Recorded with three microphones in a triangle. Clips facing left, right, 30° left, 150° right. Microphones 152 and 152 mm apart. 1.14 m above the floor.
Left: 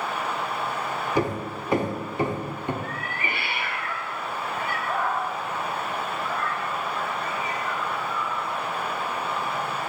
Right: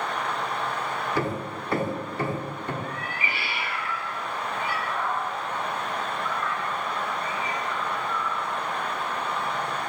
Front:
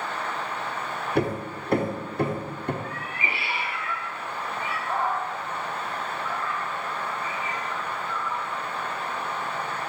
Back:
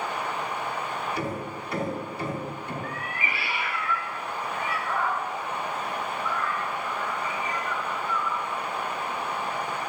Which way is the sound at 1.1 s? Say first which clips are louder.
Left 5 dB, front 5 dB; 20° left.